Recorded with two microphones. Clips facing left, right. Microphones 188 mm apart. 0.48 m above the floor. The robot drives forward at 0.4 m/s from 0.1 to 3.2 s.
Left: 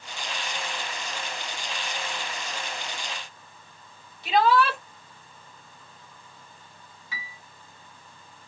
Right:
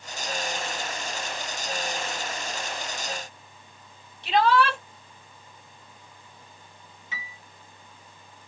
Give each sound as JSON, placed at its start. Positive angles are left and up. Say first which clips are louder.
{"t": 4.2, "sound": "a shout", "louder": "even", "side_deg": 5, "distance_m": 2.0}
{"t": 7.1, "sound": "a piano", "louder": "even", "side_deg": -20, "distance_m": 0.9}